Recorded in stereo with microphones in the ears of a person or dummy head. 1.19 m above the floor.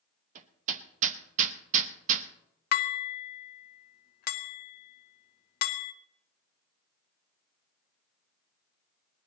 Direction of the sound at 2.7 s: 55° left (ahead or behind).